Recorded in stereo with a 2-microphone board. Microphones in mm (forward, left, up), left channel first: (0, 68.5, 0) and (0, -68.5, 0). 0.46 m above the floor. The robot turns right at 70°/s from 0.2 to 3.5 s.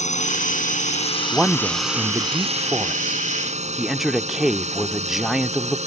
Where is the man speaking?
5° right (ahead or behind); by 5.8 s centre (ahead or behind).